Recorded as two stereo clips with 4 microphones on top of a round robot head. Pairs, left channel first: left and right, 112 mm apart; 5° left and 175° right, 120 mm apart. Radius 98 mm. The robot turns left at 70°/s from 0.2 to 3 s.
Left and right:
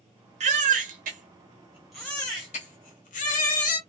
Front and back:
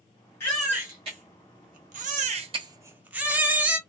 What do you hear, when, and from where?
0.4 s a baby crying: 70° right, 0.7 m; by 3.8 s 105° left, 0.7 m